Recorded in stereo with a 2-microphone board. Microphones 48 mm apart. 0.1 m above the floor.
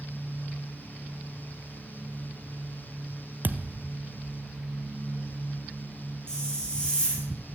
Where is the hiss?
15° left (ahead or behind), 4 m.